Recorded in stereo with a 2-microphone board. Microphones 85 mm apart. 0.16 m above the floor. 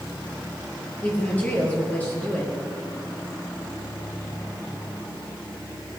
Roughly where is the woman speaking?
Centre.